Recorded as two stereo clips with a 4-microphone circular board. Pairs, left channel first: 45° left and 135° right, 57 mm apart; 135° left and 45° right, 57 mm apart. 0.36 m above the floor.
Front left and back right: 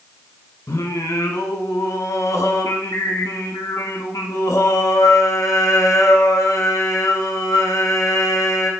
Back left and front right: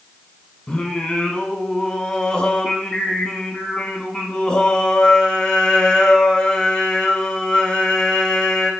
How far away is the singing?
About 0.7 m.